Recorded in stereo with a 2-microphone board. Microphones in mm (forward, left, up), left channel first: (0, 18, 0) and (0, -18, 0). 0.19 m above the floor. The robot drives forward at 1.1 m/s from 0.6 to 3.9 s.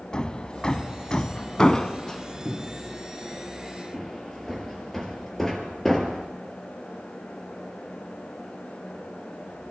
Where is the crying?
No crying in this recording.